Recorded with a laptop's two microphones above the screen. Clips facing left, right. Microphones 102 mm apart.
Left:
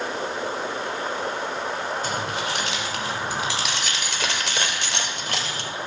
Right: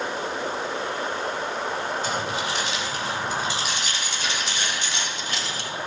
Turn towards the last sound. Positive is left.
turn(degrees=60)  # may be behind; listen again after turning